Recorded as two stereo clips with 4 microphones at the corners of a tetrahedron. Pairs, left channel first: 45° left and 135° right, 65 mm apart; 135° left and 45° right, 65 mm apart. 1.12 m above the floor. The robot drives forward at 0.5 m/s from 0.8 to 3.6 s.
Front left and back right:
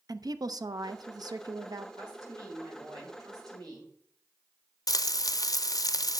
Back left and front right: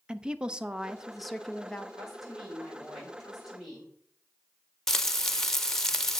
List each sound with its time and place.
0.1 s a woman speaking: 120° right, 0.6 m; by 1.9 s 150° right, 1.0 m
2.0 s a woman speaking: 130° right, 4.5 m; by 3.9 s 135° right, 5 m
4.9 s frying: 50° left, 0.5 m